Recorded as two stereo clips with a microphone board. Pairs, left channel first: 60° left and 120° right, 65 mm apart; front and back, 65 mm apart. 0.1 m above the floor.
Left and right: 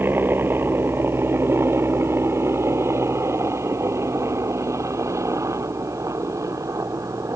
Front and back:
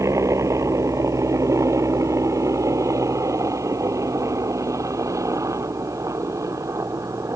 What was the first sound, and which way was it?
A helicopter, 165° right.